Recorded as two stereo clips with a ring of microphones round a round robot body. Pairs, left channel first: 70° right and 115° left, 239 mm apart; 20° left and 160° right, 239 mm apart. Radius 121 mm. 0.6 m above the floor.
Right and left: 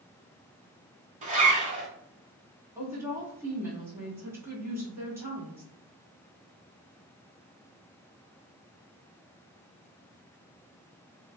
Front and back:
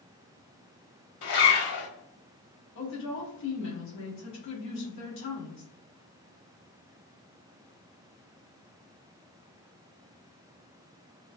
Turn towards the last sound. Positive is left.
turn(degrees=35)